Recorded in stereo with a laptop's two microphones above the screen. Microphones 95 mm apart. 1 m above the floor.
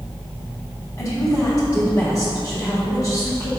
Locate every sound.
1.0 s a woman speaking: 35° left (ahead or behind), 1.3 m